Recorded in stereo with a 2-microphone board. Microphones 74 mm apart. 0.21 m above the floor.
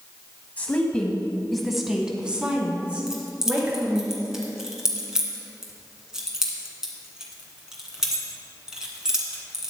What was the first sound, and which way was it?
A woman speaking, 25° left (ahead or behind).